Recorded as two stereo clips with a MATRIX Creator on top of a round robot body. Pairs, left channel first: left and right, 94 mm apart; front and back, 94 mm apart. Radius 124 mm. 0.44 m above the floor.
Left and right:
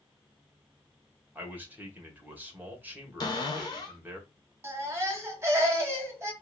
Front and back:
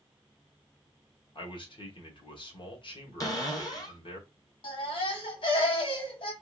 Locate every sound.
1.4 s a man speaking: 20° right, 1.7 m
3.2 s a cupboard door: 50° left, 1.7 m
4.6 s a baby crying: 30° right, 1.5 m